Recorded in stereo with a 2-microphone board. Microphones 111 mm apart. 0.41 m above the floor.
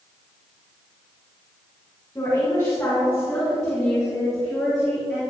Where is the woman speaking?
25° left (ahead or behind), 3 m; by 5.2 s 5° right (ahead or behind), 5.5 m.